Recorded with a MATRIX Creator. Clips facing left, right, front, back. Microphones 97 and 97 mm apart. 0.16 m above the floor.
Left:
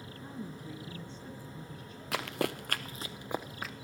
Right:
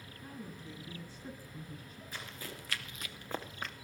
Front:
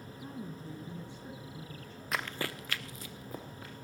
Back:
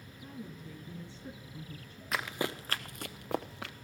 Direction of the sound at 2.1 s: 90° left.